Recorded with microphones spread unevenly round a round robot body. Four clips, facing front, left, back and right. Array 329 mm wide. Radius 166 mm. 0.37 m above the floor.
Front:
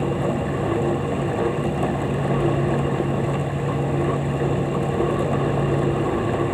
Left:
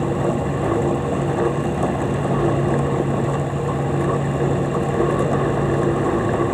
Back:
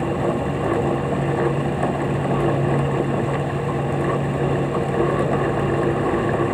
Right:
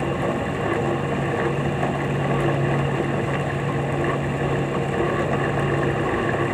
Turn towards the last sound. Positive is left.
No sound to turn to.